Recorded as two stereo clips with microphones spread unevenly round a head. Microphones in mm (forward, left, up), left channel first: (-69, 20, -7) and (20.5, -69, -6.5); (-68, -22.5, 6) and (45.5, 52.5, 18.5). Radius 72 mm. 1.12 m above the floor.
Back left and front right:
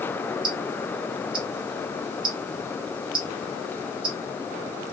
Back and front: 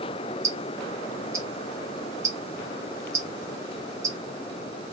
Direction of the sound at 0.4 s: 30° right.